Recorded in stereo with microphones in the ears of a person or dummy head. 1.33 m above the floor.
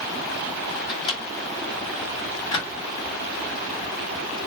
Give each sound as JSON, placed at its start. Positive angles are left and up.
{"t": 0.9, "sound": "a microwave", "side_deg": 25, "distance_m": 1.8}